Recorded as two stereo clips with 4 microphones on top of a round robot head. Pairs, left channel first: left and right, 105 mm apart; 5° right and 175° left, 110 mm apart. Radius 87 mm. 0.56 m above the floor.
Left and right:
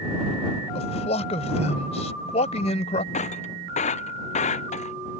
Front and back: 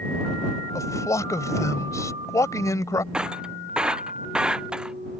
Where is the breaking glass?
95° left.